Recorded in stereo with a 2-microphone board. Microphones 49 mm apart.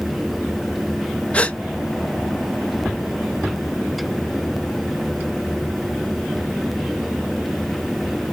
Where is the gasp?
25° left (ahead or behind), 0.5 m.